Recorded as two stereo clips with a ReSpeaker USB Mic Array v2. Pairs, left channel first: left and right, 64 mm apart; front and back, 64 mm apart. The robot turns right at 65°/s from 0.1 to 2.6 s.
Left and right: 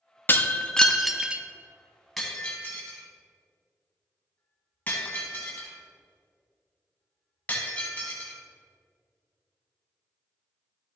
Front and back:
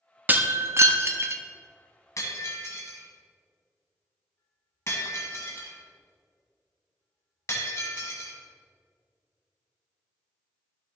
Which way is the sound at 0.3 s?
130° left.